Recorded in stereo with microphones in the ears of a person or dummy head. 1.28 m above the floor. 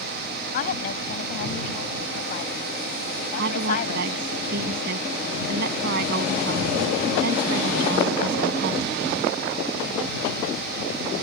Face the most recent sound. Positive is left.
turn(degrees=-65)  # may be behind; listen again after turning